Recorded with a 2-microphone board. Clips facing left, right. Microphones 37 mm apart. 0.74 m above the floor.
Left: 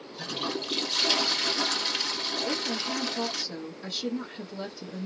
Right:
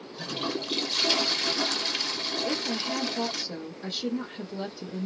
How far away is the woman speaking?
About 1.7 m.